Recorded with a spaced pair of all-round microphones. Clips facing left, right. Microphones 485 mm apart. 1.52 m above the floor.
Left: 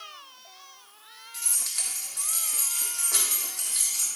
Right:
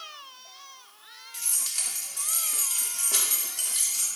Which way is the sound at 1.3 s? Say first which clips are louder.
Left 1 dB; 50° right (ahead or behind).